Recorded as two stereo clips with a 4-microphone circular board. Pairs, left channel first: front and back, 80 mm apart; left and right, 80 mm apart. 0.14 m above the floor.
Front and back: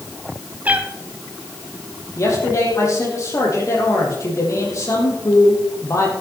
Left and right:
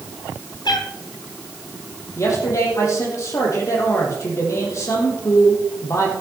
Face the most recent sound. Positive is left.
turn(degrees=45)